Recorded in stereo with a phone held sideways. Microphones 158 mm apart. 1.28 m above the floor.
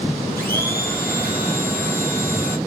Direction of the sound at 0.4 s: 15° left (ahead or behind).